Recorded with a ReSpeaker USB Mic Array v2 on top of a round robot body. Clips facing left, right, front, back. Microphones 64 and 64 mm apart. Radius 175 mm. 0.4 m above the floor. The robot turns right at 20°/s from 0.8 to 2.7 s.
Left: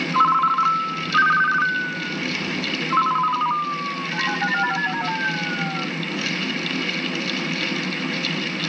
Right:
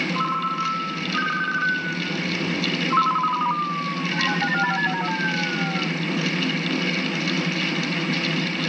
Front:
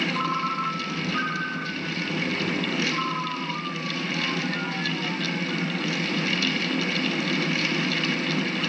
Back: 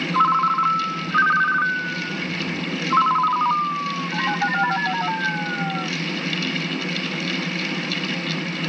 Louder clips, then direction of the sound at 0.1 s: Left 11 dB, back 9 dB; 135° left.